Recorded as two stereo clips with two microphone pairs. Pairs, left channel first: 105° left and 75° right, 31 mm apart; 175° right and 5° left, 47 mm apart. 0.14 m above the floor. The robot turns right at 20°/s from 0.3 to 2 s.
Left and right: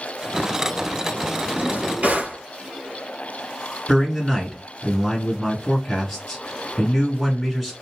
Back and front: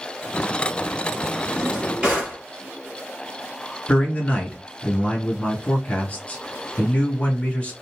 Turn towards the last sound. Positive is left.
turn(degrees=-150)